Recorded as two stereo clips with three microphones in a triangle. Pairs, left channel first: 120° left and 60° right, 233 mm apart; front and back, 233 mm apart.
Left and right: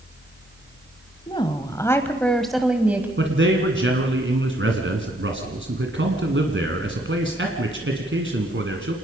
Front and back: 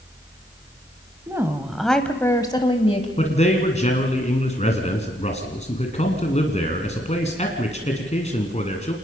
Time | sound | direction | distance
1.3 | a woman speaking | 130° left | 1.3 m
3.2 | a man speaking | 55° right | 2 m